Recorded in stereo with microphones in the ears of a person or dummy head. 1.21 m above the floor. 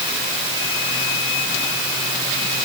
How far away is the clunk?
I don't hear a clunk.